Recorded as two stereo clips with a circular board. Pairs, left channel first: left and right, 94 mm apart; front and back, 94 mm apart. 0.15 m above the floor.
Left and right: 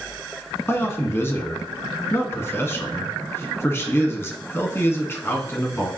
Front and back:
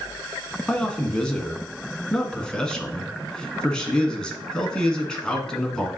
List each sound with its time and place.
0.7 s a man speaking: 70° left, 1.4 m